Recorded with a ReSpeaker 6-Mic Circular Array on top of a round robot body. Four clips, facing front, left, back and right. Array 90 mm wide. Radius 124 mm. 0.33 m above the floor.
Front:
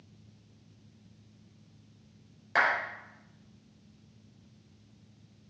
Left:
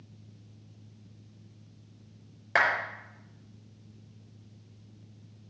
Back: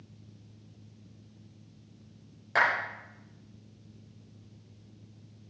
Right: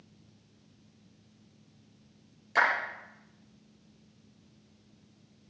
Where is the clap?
90° left, 6 m.